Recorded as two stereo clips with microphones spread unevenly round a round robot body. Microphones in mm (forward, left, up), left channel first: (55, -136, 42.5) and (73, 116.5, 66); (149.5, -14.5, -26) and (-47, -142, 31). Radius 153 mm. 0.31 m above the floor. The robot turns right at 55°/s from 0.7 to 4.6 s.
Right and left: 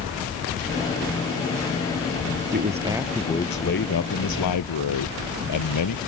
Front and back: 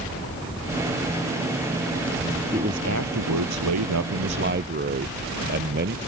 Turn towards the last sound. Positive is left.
turn(degrees=-105)